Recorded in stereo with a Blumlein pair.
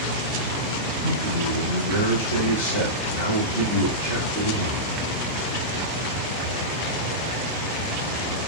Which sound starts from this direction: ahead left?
A man speaking, at 1.0 s.